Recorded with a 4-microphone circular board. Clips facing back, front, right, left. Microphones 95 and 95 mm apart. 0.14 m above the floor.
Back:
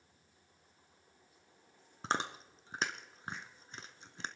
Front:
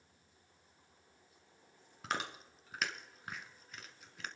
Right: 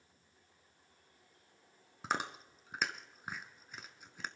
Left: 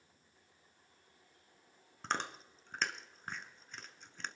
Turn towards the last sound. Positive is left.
turn(degrees=-165)